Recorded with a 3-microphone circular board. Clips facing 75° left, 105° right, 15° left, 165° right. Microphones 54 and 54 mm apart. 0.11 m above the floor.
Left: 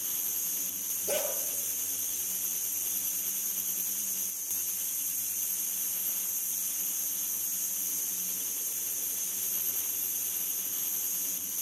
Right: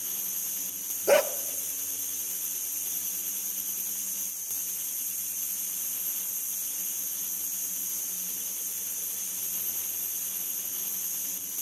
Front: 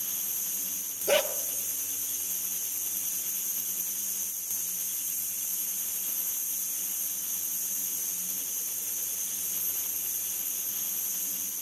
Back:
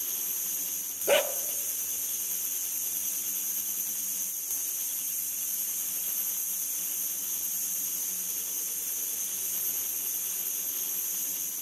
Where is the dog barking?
85° right, 0.6 m.